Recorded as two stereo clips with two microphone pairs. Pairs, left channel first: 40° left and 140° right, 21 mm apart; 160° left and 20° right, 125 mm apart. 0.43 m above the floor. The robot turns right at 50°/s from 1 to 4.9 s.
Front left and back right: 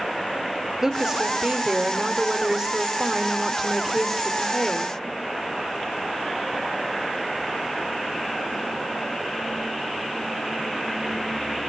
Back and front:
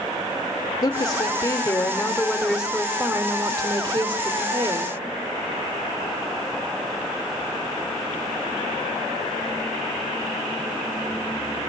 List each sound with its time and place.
0.8 s a woman speaking: 175° left, 1.0 m; by 5.0 s 10° left, 1.0 m